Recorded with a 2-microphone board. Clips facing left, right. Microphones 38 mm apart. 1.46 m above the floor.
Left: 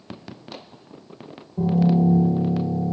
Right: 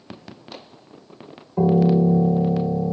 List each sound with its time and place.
1.6 s a piano: 60° right (ahead or behind), 1.1 m